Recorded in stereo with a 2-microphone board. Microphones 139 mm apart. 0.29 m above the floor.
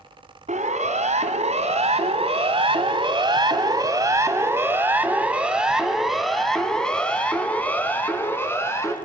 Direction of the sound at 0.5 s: 60° right (ahead or behind).